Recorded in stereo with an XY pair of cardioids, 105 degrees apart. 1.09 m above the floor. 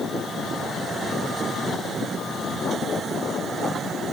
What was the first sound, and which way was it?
Only background noise.